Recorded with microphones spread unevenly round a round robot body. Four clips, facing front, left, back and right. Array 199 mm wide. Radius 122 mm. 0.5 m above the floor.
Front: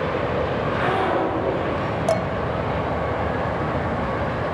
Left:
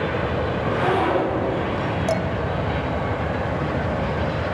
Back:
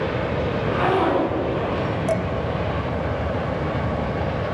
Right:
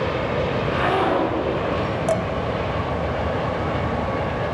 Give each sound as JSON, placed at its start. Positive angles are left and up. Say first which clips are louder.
{"t": 0.5, "sound": "a zipper", "louder": "left 1 dB, back 1 dB", "azimuth_deg": 175, "distance_m": 7.0}
{"t": 2.1, "sound": "dishes clattering", "louder": "right 2 dB, front 3 dB", "azimuth_deg": -15, "distance_m": 1.0}